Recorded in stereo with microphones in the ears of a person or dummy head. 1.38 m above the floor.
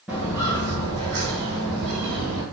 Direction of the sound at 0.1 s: 10° right (ahead or behind).